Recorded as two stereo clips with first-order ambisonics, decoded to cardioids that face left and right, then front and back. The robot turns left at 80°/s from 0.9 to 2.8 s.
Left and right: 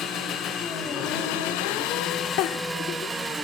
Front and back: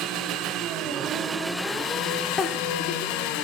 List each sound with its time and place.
0.0 s an engine running: 140° left, 2 m; by 3.4 s 10° right, 2 m
2.4 s a giggle: 70° left, 1.1 m; by 3.1 s 35° left, 1.1 m